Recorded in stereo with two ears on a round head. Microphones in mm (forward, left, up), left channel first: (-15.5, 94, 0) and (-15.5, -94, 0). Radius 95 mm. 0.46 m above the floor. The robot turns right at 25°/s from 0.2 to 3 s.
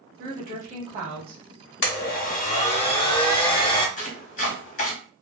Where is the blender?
55° left (ahead or behind), 0.6 m; by 3.9 s 25° left (ahead or behind), 0.6 m.